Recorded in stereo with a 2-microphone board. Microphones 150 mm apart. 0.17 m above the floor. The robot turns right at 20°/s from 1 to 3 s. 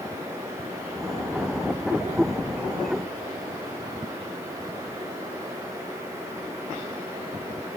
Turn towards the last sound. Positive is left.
No sound to turn to.